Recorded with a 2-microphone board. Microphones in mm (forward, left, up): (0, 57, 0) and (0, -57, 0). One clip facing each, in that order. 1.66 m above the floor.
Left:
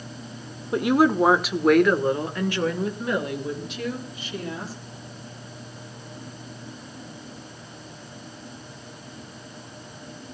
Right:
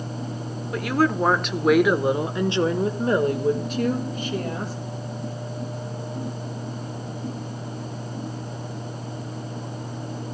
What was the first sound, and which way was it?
A woman speaking, 25° left (ahead or behind).